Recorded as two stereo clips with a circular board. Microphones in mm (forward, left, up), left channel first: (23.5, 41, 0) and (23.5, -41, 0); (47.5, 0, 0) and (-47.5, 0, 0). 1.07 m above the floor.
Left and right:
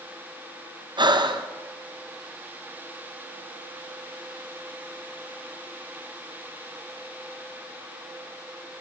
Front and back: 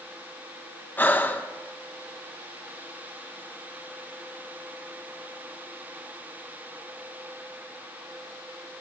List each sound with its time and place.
1.0 s breathing: 70° right, 0.7 m